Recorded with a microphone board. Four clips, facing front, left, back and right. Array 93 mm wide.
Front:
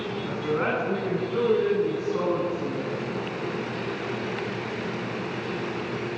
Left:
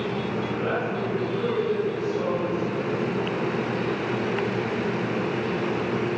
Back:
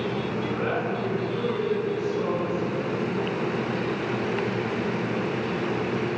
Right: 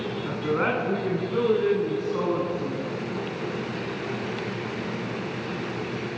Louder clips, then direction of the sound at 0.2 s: Right 2 dB, front 1 dB; 70° right.